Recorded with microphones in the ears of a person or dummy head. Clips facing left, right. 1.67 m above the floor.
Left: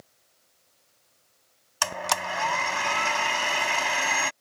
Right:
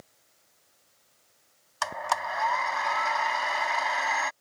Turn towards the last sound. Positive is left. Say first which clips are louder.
# left 1 dB
turn(degrees=40)  # may be behind; listen again after turning